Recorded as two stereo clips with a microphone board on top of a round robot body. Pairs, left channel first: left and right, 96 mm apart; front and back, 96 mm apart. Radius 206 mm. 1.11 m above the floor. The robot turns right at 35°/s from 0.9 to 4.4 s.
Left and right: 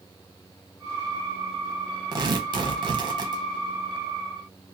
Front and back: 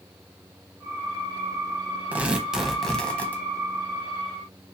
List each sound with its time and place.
2.1 s tearing paper: 110° right, 0.8 m; by 3.4 s 65° right, 0.8 m